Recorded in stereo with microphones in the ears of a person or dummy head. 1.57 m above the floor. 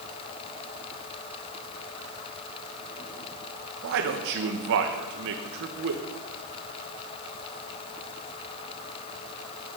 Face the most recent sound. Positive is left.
turn(degrees=-55)  # may be behind; listen again after turning